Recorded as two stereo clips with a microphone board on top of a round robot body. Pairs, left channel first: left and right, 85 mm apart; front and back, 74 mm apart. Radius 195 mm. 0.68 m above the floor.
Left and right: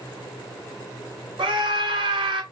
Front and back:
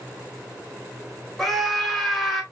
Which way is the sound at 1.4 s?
90° right.